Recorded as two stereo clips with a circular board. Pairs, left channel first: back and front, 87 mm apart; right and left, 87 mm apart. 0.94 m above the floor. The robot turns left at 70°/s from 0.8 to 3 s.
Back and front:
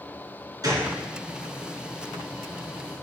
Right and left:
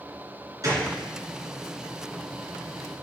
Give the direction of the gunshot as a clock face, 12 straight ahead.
11 o'clock.